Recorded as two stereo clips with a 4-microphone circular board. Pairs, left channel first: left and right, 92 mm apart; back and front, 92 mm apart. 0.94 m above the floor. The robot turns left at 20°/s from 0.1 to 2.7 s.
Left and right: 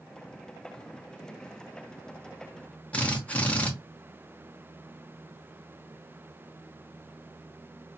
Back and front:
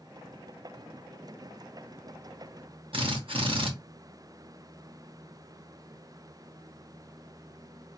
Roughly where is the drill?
Ahead.